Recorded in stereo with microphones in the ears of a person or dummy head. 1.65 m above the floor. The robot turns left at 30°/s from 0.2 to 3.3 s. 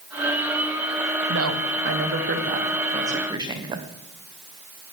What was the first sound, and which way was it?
A woman speaking, 95° right.